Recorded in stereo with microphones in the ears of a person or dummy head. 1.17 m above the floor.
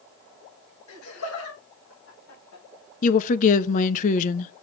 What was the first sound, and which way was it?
Laughter, 80° left.